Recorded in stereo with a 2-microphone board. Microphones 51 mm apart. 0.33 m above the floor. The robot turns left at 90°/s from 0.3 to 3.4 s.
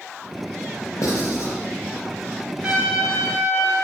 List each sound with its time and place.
1.0 s writing: 80° left, 2 m; by 1.5 s 50° left (ahead or behind), 2 m
2.6 s a trumpet: 150° right, 2.5 m; by 3.7 s 140° left, 2.5 m